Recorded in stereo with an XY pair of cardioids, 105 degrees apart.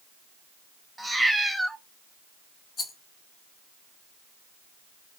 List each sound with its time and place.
1.0 s a cat meowing: 10° right, 0.6 m
2.8 s a rattle: 45° left, 0.8 m